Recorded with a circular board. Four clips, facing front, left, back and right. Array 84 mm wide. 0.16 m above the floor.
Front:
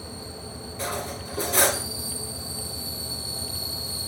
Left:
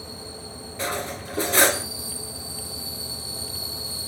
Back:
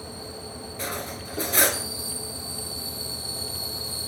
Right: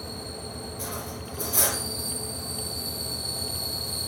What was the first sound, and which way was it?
Cutlery clinking, 100° left.